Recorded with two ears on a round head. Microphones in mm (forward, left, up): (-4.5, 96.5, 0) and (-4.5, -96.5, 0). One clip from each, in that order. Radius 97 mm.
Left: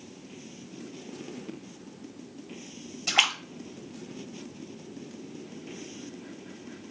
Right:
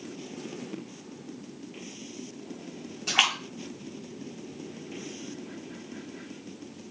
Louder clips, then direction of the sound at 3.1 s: Even; 20° left (ahead or behind).